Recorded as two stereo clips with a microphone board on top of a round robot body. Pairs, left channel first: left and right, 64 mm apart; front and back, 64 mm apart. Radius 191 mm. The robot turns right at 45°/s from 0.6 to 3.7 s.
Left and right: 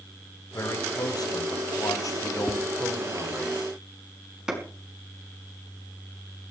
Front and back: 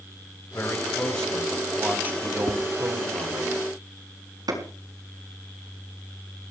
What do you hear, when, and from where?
0.5 s a man speaking: 50° left, 3.5 m; by 3.5 s straight behind, 3.5 m
2.5 s tapping: straight ahead, 1.6 m; by 2.6 s 10° left, 1.6 m
4.5 s a clap: 170° right, 6 m